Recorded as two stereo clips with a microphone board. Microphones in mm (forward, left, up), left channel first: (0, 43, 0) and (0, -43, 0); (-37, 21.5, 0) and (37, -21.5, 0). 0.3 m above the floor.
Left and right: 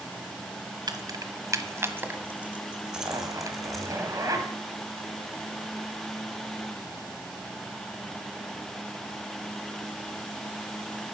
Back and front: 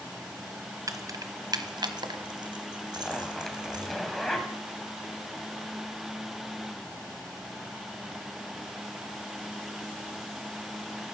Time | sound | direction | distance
0.9 | keys jangling | 70° right | 1.3 m
2.9 | a zipper | 125° right | 1.9 m